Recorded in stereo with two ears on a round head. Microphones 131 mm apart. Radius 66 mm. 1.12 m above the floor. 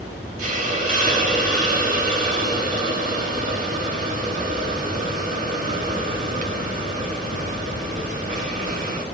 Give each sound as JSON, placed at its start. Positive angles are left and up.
{"t": 0.4, "sound": "a hiss", "side_deg": -55, "distance_m": 1.9}